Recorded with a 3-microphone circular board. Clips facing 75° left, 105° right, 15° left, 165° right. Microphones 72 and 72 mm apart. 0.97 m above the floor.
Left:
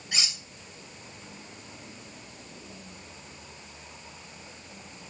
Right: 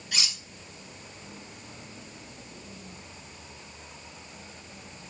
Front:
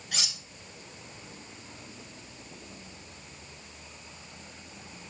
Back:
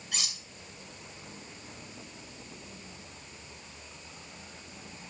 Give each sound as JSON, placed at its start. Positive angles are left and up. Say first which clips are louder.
{"t": 0.1, "sound": "cutlery clinking", "louder": "even, front 2 dB", "azimuth_deg": 10, "distance_m": 3.0}